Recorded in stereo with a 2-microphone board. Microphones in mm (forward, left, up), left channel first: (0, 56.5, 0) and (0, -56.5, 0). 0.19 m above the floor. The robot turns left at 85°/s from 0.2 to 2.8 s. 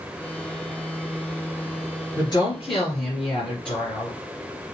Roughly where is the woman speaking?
Behind left.